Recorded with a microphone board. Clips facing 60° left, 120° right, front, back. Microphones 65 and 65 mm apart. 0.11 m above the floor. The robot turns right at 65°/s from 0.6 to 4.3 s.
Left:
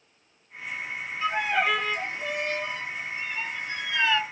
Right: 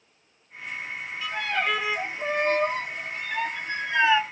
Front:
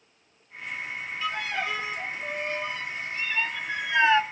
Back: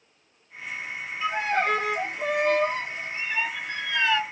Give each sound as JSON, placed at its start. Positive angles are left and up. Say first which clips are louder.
{"t": 1.2, "sound": "a violin", "louder": "left 3 dB, back 6 dB", "azimuth_deg": 115, "distance_m": 0.8}